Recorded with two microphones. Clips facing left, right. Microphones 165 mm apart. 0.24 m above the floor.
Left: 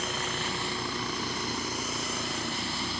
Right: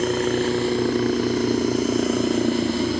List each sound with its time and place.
0.0 s a helicopter: 55° right (ahead or behind)